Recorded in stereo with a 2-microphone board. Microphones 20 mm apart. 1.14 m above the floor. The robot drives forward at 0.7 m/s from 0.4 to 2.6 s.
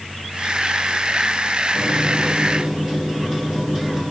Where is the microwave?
20° right (ahead or behind), 3.5 m; by 4.0 s 25° right (ahead or behind), 3 m.